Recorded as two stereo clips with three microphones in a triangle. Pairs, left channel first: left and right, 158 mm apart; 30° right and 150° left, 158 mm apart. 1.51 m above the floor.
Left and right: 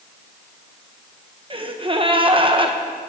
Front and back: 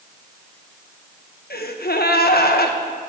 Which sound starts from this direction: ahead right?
A gasp, at 1.5 s.